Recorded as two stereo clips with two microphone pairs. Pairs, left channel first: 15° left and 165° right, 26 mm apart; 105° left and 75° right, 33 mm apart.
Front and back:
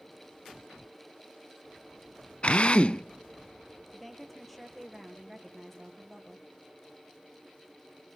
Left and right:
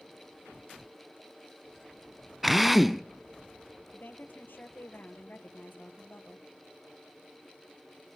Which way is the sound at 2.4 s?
5° left.